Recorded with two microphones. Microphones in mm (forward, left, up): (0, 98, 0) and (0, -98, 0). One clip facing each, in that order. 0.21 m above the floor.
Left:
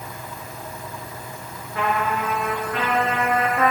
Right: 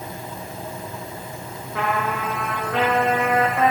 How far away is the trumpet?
About 9.5 m.